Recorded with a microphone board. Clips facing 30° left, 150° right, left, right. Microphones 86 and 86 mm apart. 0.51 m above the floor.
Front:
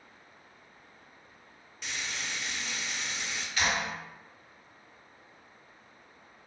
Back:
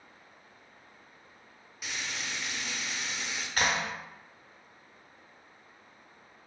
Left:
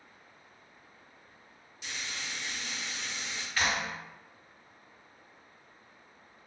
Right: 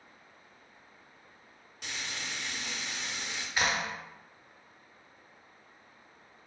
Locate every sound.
1.8 s frying: 65° right, 0.6 m
3.6 s a clap: 155° right, 0.6 m